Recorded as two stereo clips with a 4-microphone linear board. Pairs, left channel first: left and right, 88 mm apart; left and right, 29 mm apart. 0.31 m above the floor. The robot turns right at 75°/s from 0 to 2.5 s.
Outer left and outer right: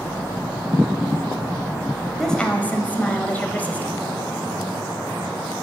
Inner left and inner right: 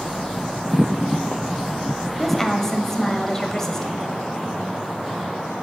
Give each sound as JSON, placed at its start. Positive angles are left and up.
{"t": 2.2, "sound": "a woman speaking", "side_deg": 0, "distance_m": 1.1}